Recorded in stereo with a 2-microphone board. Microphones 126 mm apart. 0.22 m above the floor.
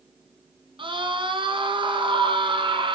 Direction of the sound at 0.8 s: 40° right (ahead or behind).